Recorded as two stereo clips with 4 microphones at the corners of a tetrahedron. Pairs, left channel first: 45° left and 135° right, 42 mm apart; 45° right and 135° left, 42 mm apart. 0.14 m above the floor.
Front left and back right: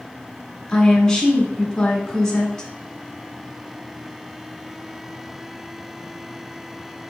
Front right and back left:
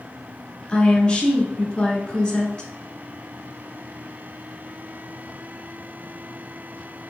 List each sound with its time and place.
0.7 s a woman speaking: 10° right, 1.2 m